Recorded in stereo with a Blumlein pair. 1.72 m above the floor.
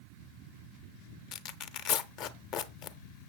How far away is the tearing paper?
About 0.7 m.